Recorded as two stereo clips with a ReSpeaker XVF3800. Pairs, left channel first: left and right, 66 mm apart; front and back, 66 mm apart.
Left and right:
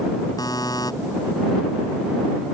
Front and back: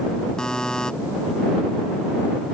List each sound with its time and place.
0.4 s a buzzer: 80° left